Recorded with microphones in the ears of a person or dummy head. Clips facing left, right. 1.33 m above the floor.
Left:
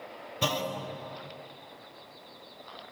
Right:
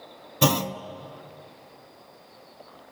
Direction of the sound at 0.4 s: 50° right (ahead or behind).